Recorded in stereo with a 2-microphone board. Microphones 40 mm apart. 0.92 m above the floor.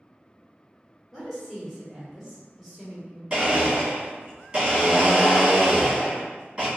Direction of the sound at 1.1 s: Centre (ahead or behind).